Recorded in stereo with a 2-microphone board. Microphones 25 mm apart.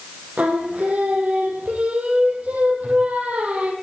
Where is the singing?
75° right (ahead or behind), 2 m.